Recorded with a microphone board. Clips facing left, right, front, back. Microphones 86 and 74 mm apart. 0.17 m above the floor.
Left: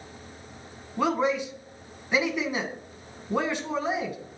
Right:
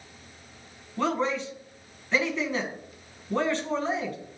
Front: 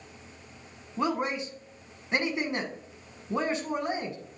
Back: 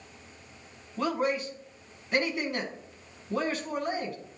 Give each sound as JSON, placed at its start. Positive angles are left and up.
{"t": 1.0, "sound": "a man speaking", "azimuth_deg": 30, "distance_m": 1.2}